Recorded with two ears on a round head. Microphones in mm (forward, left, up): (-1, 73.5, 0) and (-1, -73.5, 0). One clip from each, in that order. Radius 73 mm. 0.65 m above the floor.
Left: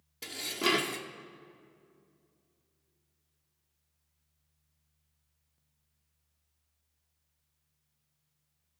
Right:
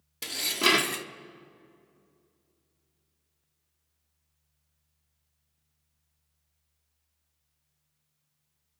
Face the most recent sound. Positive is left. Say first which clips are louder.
# right 6 dB
turn(degrees=-25)  # may be behind; listen again after turning